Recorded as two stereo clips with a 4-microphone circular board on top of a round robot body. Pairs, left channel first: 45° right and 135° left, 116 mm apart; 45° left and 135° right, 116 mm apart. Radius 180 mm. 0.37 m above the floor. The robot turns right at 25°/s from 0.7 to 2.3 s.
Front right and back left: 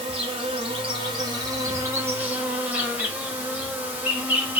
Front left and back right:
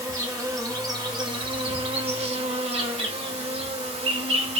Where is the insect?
170° left, 1.0 m; by 4.6 s 150° right, 1.0 m.